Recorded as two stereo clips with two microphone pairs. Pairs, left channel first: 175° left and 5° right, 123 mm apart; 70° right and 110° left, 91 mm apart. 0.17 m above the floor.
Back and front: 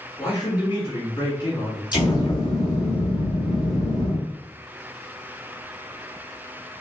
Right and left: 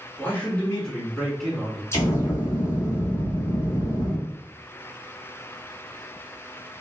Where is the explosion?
130° right, 1.2 m.